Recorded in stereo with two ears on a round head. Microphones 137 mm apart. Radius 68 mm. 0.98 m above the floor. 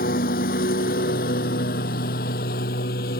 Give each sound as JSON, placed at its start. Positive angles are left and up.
{"t": 0.0, "sound": "a lawn mower", "side_deg": 65}